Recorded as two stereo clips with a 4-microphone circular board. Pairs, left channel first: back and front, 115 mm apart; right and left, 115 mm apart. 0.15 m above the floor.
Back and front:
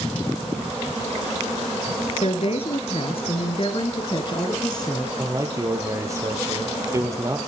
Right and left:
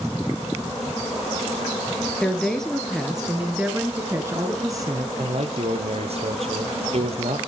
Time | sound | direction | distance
2.2 | a woman speaking | 170° right | 3 m
5.2 | a man speaking | 65° left | 3 m